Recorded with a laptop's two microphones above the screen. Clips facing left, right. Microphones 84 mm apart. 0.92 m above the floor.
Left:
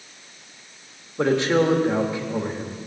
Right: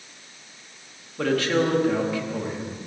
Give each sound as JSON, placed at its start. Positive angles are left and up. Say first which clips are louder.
{"t": 1.2, "sound": "a man speaking", "louder": "left 3 dB", "side_deg": 25, "distance_m": 1.3}